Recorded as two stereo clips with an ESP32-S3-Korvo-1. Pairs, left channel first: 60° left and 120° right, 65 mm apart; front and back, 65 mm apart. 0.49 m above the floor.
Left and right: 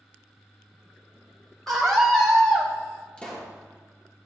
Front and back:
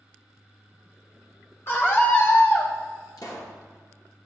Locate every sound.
1.7 s a scream: 20° right, 1.7 m
3.2 s a pop: 10° right, 2.5 m